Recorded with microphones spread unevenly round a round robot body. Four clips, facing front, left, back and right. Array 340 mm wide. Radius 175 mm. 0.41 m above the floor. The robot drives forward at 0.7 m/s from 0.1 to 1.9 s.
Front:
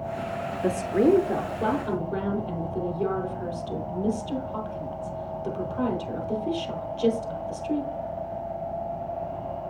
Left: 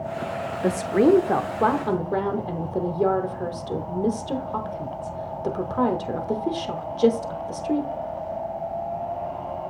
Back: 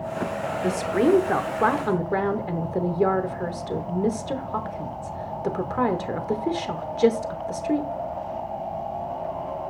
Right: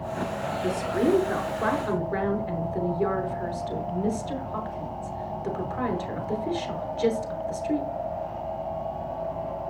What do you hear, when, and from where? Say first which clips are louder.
0.6 s a woman speaking: left 6 dB, even; 75° left, 0.9 m; by 7.9 s 145° left, 1.2 m